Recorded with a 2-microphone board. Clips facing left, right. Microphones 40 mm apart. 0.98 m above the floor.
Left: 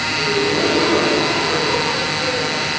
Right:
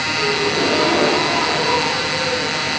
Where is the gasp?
85° right, 6.5 m.